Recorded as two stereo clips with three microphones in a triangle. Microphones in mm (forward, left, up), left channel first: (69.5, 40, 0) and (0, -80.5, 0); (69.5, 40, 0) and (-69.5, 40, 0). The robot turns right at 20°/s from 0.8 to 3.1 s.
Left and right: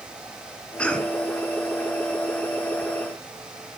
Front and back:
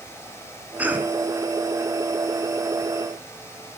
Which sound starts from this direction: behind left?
A cough, at 0.8 s.